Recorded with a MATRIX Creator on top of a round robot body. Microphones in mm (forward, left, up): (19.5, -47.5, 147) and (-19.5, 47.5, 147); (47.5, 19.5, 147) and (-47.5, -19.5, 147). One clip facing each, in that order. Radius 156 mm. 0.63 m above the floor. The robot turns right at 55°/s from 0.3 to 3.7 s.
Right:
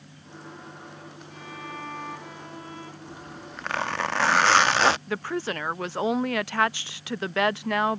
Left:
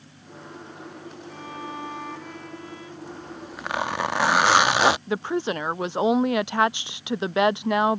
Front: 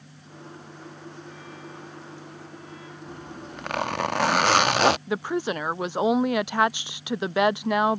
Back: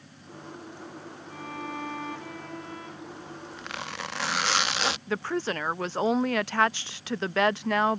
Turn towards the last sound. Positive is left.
turn(degrees=75)